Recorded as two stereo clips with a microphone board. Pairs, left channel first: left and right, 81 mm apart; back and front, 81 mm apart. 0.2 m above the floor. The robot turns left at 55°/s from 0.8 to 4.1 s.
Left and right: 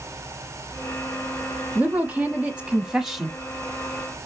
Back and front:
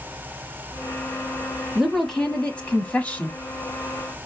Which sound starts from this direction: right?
A woman speaking, at 1.8 s.